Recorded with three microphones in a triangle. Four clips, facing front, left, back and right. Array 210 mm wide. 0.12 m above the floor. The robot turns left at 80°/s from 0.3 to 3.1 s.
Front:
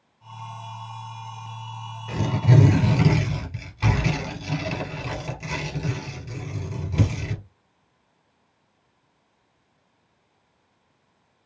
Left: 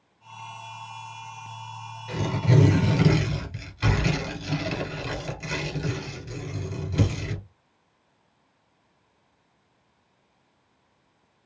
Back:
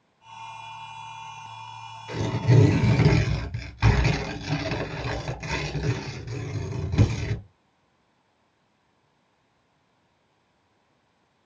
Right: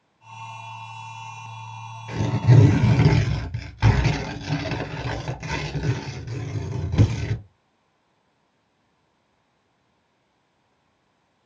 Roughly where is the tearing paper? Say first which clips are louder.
Right 2 dB, front 2 dB; ahead right.